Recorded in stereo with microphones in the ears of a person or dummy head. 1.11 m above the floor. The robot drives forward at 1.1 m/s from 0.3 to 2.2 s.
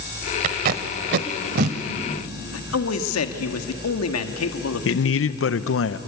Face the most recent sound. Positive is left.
turn(degrees=65)  # may be behind; listen again after turning